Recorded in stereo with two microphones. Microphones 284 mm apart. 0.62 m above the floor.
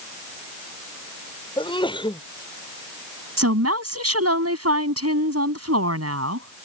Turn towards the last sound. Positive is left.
turn(degrees=-60)  # may be behind; listen again after turning